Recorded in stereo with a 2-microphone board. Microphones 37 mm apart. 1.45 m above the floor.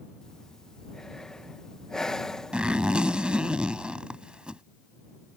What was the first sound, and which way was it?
Breathing, 15° left (ahead or behind).